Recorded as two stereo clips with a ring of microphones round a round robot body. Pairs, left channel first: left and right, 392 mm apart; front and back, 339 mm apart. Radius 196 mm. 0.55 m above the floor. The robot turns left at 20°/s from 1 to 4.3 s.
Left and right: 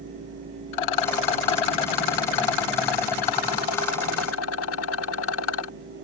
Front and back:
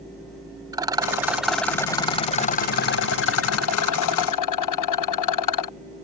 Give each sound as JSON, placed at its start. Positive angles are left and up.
{"t": 0.7, "sound": "a rattle", "azimuth_deg": 100}